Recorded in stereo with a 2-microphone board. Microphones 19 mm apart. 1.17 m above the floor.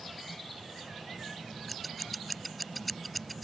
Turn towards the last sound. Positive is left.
turn(degrees=0)  # may be behind; listen again after turning